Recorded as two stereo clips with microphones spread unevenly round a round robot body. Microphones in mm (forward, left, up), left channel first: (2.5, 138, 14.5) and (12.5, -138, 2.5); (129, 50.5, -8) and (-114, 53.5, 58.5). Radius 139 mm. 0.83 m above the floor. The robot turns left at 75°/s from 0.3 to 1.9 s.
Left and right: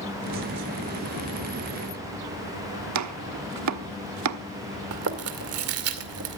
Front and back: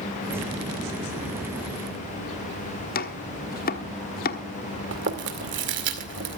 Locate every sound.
3.0 s chopping: 55° right, 1.2 m
4.9 s chewing: 130° right, 2.5 m